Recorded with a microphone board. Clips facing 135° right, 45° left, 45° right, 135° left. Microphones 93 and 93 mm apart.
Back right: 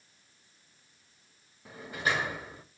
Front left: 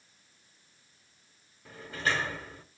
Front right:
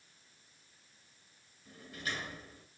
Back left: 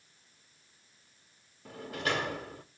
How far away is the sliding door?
About 0.8 m.